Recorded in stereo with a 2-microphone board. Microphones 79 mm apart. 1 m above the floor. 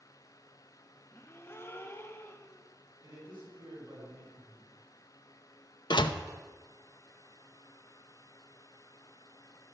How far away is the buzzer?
No buzzer in this recording.